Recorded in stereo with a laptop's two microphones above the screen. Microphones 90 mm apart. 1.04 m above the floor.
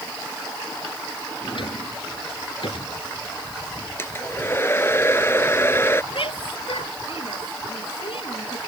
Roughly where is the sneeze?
I don't hear a sneeze.